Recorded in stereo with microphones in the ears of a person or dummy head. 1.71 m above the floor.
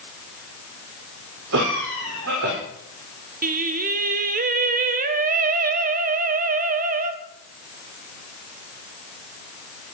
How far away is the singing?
About 1.2 m.